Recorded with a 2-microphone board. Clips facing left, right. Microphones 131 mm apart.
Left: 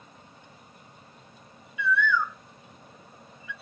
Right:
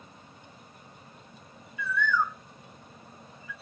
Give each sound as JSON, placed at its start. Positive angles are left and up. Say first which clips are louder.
{"t": 1.8, "sound": "a bird", "louder": "left 2 dB", "side_deg": -40, "distance_m": 0.6}